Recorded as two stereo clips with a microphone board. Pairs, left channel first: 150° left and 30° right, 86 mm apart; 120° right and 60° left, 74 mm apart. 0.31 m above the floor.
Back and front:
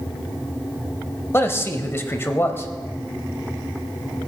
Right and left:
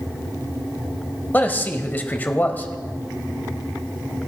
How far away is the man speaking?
About 1.2 m.